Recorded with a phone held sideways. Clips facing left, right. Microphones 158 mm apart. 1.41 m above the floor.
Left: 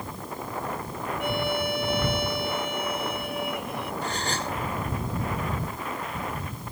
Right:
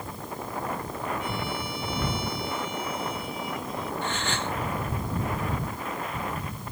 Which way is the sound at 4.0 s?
40° left (ahead or behind).